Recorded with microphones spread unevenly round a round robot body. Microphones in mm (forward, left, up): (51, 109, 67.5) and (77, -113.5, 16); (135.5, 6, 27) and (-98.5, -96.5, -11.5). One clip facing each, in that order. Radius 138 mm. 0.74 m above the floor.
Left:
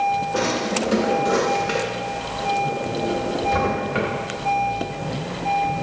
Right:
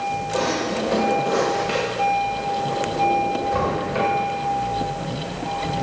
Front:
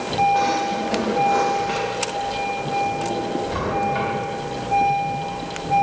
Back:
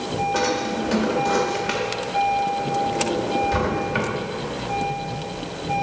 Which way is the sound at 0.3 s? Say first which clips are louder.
Right 1 dB, back 1 dB; 170° left.